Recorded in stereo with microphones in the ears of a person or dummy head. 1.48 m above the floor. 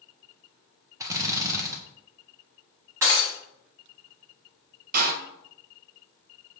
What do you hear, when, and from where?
1.0 s a drill: 10° right (ahead or behind), 0.6 m
3.0 s breaking glass: 10° right (ahead or behind), 1.3 m
4.9 s a door slam: 45° right (ahead or behind), 0.9 m